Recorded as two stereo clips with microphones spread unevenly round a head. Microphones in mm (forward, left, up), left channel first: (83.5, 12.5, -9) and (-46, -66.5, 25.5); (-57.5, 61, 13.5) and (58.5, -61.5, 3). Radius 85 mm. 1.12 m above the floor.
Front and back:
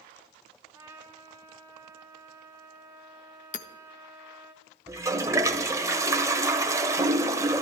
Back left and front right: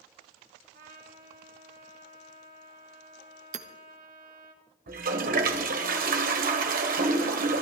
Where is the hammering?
Straight ahead, 1.2 m.